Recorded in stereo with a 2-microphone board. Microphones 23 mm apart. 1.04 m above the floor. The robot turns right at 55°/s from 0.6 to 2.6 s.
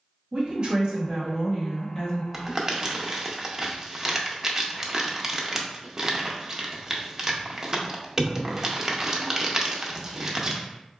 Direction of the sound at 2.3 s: 20° right (ahead or behind).